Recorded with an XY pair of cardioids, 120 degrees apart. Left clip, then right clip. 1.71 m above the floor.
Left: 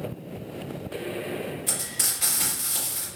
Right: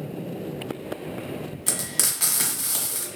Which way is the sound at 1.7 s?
70° right.